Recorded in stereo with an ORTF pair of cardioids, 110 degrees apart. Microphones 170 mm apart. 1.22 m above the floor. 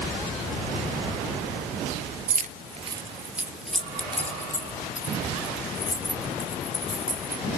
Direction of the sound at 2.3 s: 60° right.